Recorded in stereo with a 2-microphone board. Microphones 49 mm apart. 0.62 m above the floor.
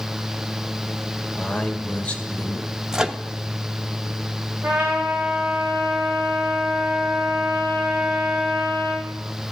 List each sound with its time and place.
1.4 s a man speaking: 25° left (ahead or behind), 2 m
2.9 s a microwave: 10° right (ahead or behind), 0.8 m
4.6 s a trumpet: 30° right (ahead or behind), 7 m